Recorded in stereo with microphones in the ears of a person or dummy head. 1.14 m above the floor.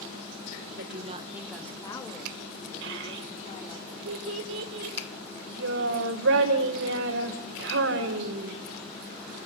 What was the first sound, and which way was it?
A woman speaking, 55° right (ahead or behind).